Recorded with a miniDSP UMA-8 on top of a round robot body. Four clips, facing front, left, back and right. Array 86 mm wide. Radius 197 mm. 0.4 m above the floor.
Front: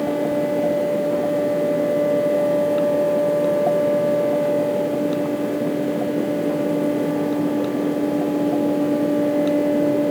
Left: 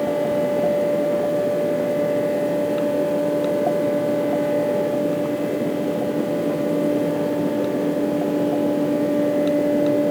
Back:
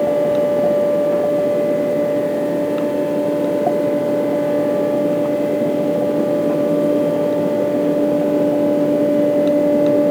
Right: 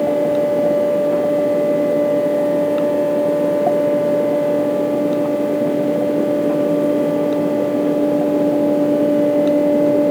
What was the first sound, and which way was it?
Only background noise.